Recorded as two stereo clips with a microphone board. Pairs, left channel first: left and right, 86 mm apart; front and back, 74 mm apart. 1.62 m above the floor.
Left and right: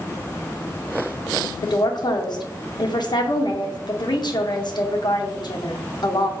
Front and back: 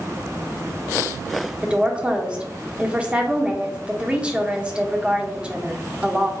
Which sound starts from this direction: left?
A woman speaking, at 1.6 s.